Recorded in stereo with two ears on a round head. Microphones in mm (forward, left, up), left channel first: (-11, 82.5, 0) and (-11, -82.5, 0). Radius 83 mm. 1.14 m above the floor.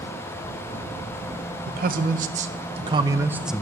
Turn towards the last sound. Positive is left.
turn(degrees=5)  # may be behind; listen again after turning